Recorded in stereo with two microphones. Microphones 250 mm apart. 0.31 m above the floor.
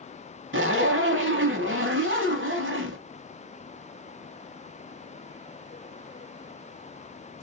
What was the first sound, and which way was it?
A zipper, 50° right (ahead or behind).